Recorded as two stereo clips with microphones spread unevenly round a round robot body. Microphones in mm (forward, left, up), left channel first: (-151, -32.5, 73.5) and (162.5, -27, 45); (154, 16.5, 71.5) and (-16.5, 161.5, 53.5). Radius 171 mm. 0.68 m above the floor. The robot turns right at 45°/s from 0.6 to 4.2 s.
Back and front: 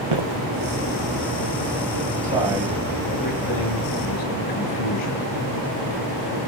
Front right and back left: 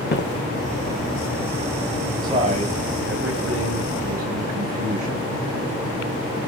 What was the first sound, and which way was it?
Footsteps, straight ahead.